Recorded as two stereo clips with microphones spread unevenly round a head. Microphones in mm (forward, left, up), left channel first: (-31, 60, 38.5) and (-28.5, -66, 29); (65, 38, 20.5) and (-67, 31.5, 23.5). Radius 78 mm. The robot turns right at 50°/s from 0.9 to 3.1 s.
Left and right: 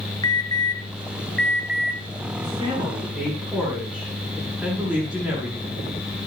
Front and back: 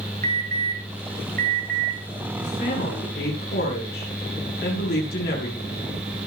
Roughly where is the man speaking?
Ahead right.